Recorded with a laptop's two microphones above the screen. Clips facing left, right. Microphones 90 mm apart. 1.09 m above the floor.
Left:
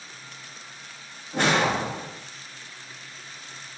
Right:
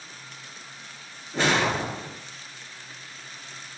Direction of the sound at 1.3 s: 60° left (ahead or behind).